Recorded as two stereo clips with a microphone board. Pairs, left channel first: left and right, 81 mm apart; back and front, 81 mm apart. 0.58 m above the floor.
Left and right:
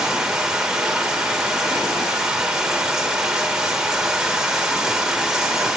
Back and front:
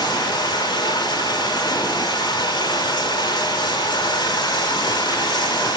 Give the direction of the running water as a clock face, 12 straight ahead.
6 o'clock.